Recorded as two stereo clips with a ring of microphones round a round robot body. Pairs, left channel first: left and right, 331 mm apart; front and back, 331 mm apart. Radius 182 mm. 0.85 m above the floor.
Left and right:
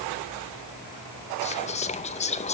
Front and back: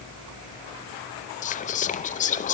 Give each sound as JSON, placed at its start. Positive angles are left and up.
{"t": 1.4, "sound": "whispering", "azimuth_deg": 40, "distance_m": 0.6}